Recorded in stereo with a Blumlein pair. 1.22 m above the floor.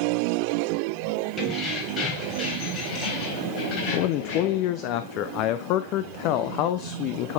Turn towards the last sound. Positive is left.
turn(degrees=40)